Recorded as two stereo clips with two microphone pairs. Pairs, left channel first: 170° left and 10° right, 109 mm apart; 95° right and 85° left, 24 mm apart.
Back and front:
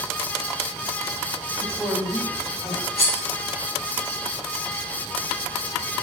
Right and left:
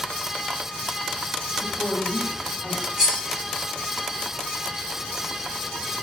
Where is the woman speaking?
80° right, 2 m; by 2.9 s 115° right, 1.6 m.